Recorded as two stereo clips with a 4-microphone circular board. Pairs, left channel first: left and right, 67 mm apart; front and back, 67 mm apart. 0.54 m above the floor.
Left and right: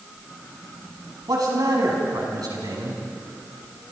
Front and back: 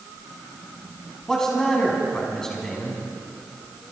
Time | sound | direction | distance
1.3 | a man speaking | 80° right | 5.5 m